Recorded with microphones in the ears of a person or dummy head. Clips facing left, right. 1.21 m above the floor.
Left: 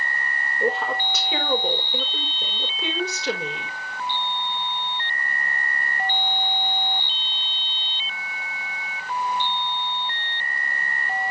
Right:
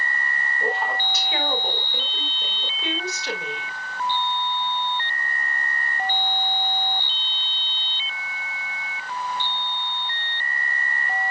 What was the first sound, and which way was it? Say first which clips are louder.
A woman speaking: left 3 dB; 75° left (ahead or behind).